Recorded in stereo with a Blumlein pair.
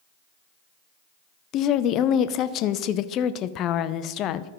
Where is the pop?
No pop in this recording.